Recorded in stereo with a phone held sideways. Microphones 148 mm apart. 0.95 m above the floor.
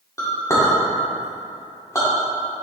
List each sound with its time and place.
0.2 s a clink: 20° left (ahead or behind), 1.7 m